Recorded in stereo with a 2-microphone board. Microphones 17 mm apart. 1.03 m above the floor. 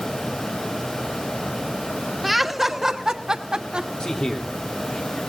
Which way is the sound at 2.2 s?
10° right (ahead or behind).